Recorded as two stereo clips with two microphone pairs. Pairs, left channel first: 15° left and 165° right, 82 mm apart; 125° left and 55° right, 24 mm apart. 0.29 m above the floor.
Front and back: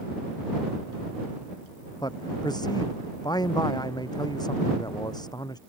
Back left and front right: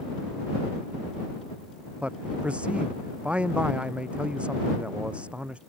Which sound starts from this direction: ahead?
A man speaking, at 2.0 s.